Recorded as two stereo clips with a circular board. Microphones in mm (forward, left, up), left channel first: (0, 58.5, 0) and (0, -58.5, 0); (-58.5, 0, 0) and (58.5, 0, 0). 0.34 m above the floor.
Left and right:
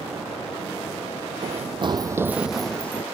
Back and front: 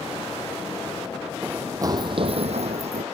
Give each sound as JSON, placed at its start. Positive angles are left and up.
{"t": 1.4, "sound": "running footsteps", "azimuth_deg": -75}